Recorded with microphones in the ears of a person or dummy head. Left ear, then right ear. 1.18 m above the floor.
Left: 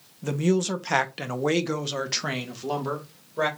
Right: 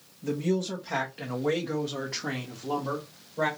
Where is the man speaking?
45° left (ahead or behind), 0.7 m; by 3.5 s 55° left (ahead or behind), 1.6 m.